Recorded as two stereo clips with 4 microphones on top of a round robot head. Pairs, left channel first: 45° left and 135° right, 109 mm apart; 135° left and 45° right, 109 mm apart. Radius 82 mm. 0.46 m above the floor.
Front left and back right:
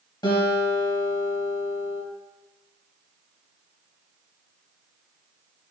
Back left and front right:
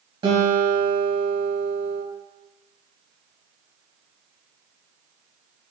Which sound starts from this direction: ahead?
A guitar, at 0.2 s.